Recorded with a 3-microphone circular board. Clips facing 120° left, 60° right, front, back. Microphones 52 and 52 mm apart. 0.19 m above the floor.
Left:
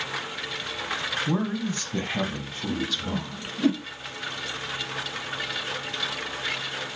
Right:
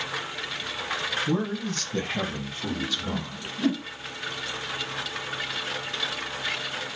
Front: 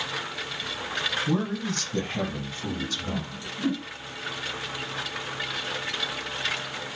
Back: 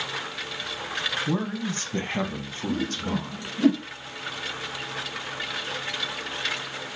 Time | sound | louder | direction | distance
1.3 | a man speaking | left 1 dB, front 1 dB | 115° left | 1.4 m
2.7 | a whoosh | left 2 dB, back 5 dB | 160° right | 1.1 m